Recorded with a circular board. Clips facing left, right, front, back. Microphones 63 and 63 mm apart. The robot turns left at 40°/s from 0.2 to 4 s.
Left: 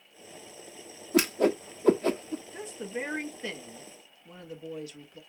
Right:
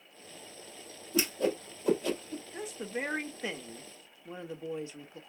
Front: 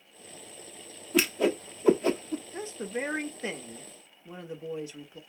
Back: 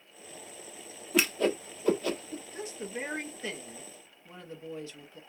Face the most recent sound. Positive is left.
turn(degrees=-60)